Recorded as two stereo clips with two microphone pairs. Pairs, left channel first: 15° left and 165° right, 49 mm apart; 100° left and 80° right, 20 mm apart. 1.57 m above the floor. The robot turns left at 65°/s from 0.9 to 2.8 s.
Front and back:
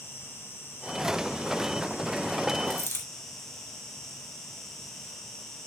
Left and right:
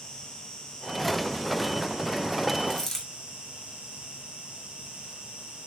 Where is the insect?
60° left, 3.5 m; by 5.7 s 65° right, 3.5 m.